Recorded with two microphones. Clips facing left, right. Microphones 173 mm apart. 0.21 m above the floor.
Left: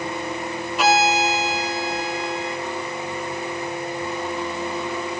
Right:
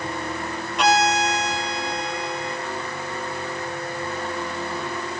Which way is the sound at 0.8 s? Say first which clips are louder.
Left 1 dB; 5° left (ahead or behind).